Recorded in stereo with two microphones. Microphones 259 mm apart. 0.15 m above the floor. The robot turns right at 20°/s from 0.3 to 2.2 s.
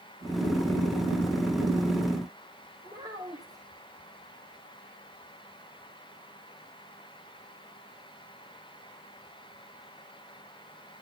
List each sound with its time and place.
2.8 s a child speaking: 15° right (ahead or behind), 8.5 m